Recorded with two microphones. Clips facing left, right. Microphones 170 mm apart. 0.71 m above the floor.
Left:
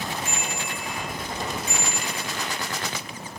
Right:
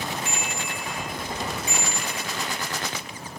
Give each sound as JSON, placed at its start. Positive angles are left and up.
{"t": 0.2, "sound": "a bicycle bell", "side_deg": 45, "distance_m": 3.5}